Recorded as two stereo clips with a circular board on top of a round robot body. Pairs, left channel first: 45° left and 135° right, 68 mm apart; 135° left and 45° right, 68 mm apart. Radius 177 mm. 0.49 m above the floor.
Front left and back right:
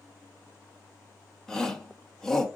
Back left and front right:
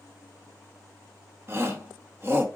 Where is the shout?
35° right, 1.4 m.